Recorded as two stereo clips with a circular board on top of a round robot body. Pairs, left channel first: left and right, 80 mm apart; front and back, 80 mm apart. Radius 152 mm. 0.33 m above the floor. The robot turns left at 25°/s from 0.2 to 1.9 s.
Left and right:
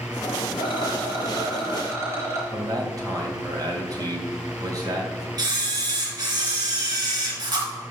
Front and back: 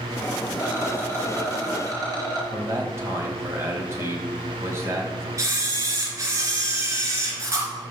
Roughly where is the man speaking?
Behind right.